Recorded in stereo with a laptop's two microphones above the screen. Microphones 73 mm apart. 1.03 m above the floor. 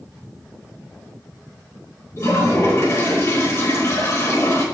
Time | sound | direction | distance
2.2 | a toilet flushing | 40° left (ahead or behind) | 4 m